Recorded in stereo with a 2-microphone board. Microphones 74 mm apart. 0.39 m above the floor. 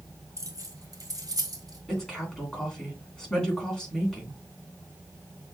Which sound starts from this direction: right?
Keys jangling, at 0.4 s.